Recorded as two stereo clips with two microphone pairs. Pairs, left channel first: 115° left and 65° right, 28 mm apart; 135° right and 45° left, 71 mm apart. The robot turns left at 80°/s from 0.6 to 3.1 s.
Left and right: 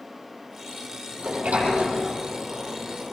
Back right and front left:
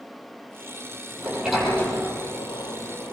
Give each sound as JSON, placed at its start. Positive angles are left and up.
{"t": 1.2, "sound": "a sliding door", "azimuth_deg": -10, "distance_m": 8.0}